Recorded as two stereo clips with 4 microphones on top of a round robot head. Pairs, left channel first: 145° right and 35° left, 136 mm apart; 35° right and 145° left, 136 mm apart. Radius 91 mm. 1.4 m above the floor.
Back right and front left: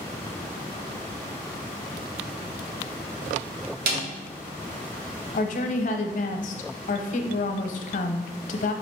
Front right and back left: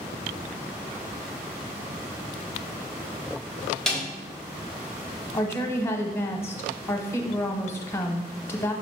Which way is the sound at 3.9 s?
50° left.